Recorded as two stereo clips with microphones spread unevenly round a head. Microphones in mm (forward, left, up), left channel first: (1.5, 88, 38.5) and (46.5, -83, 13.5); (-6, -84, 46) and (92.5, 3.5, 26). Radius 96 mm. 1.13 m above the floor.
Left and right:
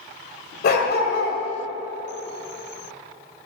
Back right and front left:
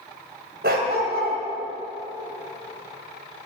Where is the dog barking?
80° left, 1.8 m.